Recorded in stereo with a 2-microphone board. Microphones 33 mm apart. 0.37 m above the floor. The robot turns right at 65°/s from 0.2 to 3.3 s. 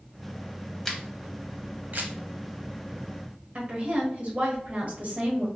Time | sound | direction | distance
0.8 | a camera shutter | 5° left (ahead or behind) | 0.6 m
3.5 | a woman speaking | 45° right (ahead or behind) | 1.2 m